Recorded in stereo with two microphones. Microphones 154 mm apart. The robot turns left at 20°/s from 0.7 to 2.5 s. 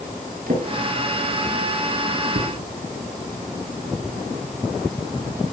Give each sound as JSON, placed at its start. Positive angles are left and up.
{"t": 0.5, "sound": "a drawer", "side_deg": -65, "distance_m": 8.5}